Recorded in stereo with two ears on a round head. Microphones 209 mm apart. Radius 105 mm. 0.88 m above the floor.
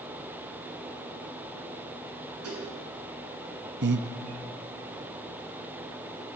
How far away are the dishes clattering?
About 8 m.